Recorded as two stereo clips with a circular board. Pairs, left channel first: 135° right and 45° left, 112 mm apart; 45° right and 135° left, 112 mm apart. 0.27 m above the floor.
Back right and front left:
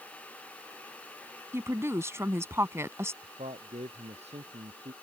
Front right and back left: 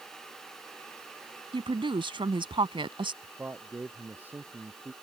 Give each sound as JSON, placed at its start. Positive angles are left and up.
{"t": 1.5, "sound": "a woman speaking", "azimuth_deg": 105}
{"t": 3.2, "sound": "a man speaking", "azimuth_deg": 60}